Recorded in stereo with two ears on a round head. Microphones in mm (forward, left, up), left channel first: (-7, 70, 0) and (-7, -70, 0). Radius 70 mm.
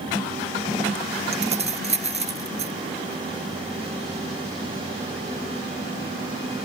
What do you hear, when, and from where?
1.3 s keys jangling: 45° right (ahead or behind)